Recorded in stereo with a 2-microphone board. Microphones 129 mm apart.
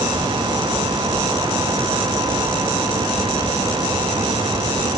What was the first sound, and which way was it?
Only background noise.